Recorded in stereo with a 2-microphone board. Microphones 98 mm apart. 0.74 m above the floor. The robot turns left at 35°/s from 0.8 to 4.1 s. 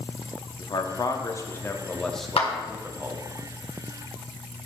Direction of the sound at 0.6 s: 45° left (ahead or behind).